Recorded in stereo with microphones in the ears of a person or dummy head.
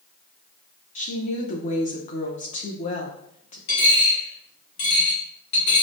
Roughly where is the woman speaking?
Left.